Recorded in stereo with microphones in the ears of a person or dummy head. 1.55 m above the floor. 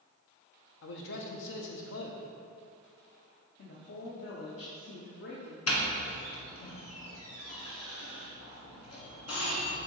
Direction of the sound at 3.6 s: 70° left (ahead or behind).